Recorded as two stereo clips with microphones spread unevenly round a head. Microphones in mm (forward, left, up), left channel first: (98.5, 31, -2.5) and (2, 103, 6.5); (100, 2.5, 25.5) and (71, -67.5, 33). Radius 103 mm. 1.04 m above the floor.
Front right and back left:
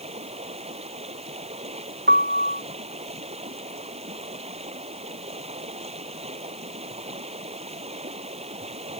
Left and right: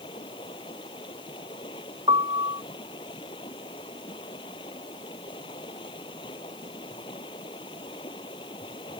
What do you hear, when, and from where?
0.0 s running water: 110° left
2.1 s a piano: 175° right